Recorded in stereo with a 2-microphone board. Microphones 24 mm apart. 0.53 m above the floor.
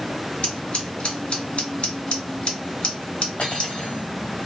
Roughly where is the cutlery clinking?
Left.